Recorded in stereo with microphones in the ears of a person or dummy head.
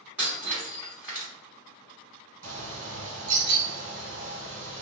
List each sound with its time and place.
0.2 s breaking glass: 10° right (ahead or behind), 1.1 m
2.4 s a bird: 80° right, 1.4 m